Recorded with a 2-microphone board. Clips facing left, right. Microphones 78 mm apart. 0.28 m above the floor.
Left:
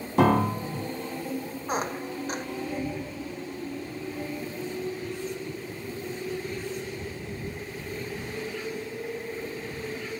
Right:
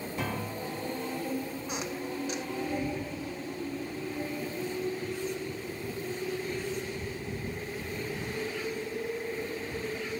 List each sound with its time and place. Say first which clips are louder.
0.2 s a piano: left 15 dB; 70° left (ahead or behind)
1.7 s a squeak: left 9 dB; 45° left (ahead or behind)